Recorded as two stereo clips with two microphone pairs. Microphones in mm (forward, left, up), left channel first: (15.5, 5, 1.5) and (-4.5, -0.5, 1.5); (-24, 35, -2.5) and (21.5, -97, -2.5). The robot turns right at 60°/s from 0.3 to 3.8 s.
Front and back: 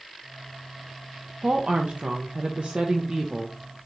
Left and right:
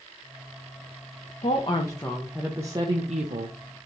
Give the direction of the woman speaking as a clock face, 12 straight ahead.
7 o'clock.